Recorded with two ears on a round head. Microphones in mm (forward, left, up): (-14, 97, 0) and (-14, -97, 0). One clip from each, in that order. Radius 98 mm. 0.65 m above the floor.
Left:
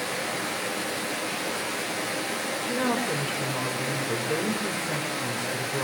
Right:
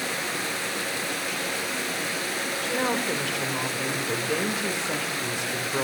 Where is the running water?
30° right (ahead or behind), 2.5 m.